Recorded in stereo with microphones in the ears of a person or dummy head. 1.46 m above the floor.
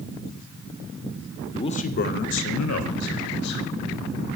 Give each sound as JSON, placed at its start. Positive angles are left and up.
{"t": 1.5, "sound": "a man speaking", "side_deg": 25, "distance_m": 0.5}